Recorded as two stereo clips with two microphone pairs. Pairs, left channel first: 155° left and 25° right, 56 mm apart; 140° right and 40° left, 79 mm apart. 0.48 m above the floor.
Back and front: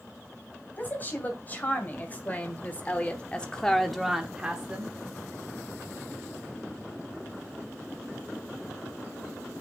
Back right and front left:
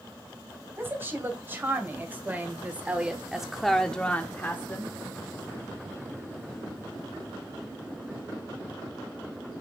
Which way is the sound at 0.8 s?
100° left.